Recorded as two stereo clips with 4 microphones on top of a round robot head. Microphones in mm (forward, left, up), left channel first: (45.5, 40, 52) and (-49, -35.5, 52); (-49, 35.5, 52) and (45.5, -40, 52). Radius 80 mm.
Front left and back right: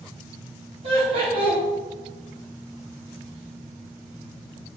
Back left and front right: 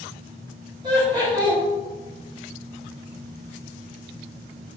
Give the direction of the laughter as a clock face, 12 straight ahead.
3 o'clock.